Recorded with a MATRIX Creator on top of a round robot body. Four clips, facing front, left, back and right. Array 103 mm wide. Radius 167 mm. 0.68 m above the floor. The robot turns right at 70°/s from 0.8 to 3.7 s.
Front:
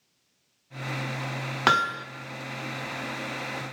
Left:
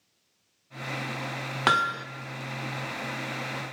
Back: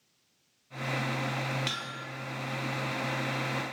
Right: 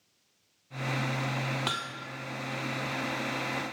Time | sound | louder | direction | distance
1.7 | hammering | left 11 dB, front 15 dB | 30° left | 1.3 m